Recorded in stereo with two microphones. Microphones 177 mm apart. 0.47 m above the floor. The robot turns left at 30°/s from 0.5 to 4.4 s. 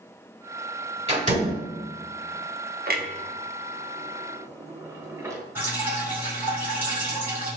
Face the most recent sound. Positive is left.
turn(degrees=-10)  # may be behind; listen again after turning